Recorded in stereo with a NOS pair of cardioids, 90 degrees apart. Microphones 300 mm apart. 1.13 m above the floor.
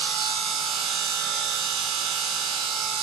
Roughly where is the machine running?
Right.